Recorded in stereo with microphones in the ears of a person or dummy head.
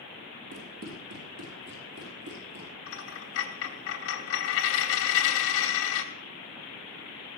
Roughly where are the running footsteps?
Right.